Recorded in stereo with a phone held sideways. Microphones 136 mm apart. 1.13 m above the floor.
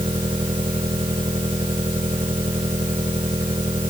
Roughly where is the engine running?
Right.